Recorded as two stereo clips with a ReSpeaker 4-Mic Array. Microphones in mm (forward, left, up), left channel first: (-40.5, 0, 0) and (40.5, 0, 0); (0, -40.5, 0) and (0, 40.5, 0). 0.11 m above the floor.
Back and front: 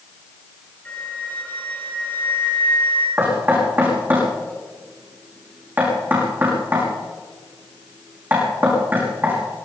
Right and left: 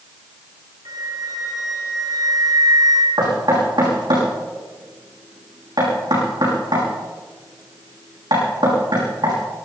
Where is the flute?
115° left, 3.5 m.